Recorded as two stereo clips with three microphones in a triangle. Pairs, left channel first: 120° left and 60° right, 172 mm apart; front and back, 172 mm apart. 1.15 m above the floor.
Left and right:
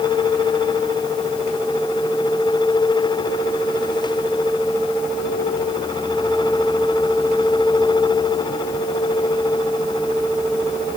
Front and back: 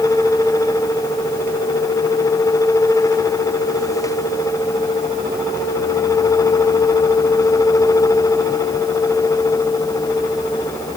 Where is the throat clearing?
No throat clearing in this recording.